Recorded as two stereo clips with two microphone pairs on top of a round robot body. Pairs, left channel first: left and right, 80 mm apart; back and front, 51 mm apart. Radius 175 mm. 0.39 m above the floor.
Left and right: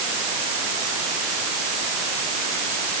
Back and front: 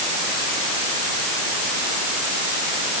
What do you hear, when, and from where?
Only background noise.